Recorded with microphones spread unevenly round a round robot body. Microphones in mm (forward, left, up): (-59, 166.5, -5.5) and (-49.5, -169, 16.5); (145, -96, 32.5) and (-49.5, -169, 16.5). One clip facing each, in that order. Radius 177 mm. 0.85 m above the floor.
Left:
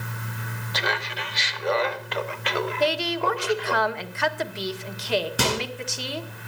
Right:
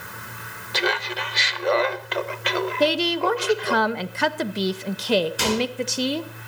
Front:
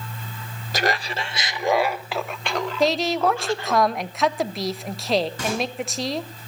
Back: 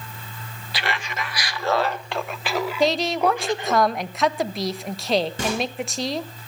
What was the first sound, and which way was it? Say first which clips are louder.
Laughter: right 6 dB, front 5 dB; 30° right.